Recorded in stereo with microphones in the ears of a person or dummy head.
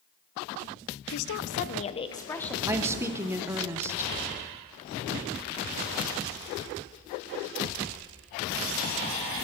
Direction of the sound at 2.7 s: 10° right (ahead or behind).